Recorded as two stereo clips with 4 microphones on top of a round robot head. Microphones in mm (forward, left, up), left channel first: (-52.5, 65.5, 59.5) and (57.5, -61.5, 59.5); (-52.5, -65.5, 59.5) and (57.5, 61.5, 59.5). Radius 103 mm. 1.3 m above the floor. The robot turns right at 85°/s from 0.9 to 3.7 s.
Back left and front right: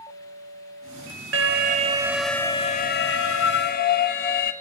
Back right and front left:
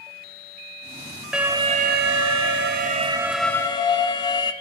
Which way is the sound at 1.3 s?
35° right.